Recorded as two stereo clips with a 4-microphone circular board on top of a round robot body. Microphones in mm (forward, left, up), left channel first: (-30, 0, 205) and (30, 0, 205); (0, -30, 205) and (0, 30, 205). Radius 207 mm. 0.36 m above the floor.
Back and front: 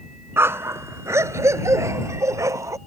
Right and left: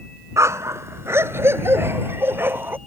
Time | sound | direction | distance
0.4 | a dog barking | 50° left | ?